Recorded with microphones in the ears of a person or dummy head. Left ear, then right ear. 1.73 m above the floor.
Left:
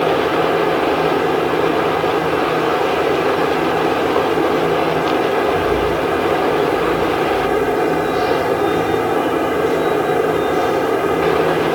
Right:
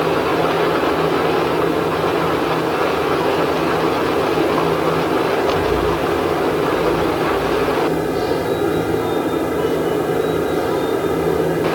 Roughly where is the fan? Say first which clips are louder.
Left 1 dB; left.